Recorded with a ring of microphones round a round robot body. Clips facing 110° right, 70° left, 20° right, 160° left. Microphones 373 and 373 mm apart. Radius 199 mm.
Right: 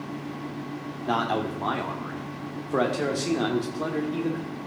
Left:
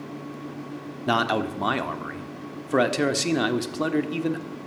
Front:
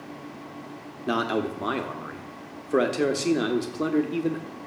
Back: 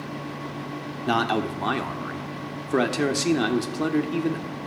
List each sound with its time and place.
1.1 s a man speaking: 85° left, 1.4 m